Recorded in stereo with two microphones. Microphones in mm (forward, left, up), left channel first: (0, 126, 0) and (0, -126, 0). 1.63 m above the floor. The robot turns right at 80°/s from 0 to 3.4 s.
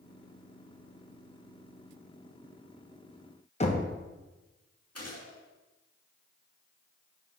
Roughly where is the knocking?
Left.